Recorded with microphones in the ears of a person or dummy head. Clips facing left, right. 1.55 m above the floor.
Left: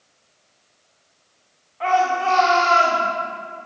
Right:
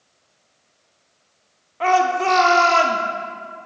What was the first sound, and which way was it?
A shout, 50° right (ahead or behind).